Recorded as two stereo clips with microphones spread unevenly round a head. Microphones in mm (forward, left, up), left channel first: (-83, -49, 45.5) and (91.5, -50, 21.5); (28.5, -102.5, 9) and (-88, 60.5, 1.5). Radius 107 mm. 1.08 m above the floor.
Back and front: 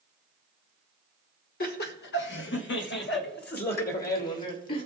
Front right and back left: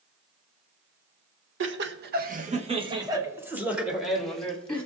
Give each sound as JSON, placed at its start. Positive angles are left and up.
{"t": 1.6, "sound": "laughter", "azimuth_deg": 135, "distance_m": 1.5}